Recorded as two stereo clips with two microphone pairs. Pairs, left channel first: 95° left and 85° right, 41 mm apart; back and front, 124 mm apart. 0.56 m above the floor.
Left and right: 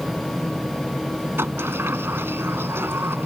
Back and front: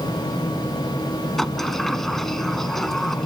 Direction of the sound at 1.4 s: 95° right.